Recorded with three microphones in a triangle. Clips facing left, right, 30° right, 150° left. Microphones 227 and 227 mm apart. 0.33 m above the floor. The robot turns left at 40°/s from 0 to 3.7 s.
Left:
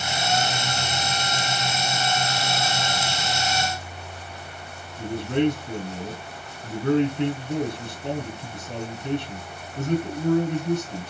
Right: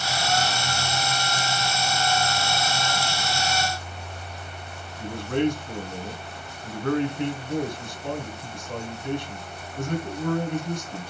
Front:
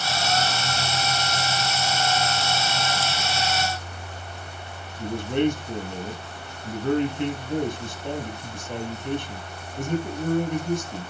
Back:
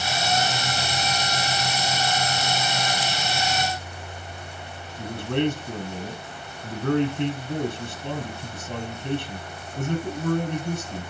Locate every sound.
5.0 s a man speaking: 155° left, 3.5 m